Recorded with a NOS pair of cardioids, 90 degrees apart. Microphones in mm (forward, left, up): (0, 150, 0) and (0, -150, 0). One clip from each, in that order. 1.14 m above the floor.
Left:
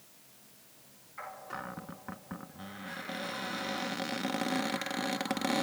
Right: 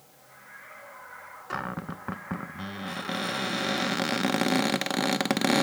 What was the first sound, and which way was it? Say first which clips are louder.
A cupboard door: right 11 dB; 45° right.